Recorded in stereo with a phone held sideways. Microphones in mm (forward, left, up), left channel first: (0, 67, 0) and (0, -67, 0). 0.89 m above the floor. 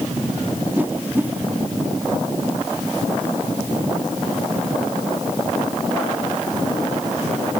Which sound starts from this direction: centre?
A whoosh, at 0.8 s.